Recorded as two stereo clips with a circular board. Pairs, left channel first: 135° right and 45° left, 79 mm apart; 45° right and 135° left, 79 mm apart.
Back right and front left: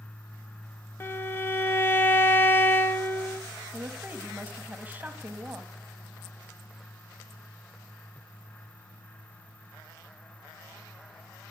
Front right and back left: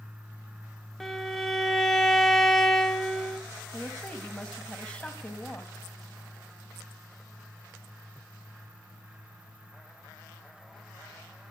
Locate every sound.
1.0 s a violin: 130° right, 0.8 m
3.7 s a woman speaking: 10° left, 1.0 m